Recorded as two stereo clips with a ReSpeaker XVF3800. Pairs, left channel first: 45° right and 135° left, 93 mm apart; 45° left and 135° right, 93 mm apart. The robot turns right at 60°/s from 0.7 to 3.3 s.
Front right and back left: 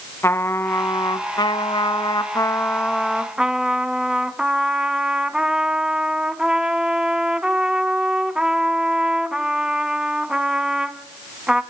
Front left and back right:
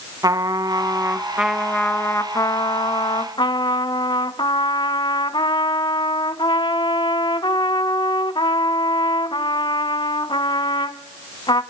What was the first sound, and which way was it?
A trumpet, 100° right.